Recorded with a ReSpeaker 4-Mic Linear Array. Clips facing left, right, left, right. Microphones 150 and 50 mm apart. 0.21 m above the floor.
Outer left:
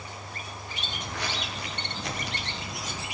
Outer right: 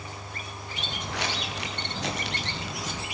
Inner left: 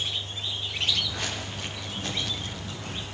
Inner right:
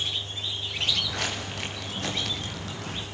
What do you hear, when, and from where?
0.8 s footsteps: 80° right, 7 m; by 3.0 s 85° right, 6 m